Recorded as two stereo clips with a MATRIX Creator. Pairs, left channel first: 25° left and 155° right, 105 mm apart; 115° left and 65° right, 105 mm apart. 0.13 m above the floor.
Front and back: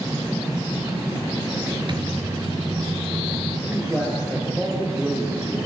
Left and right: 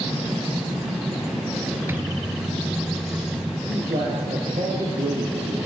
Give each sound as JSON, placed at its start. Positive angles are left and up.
{"t": 1.9, "sound": "a microwave", "azimuth_deg": -130, "distance_m": 1.4}
{"t": 3.7, "sound": "a man speaking", "azimuth_deg": -85, "distance_m": 4.0}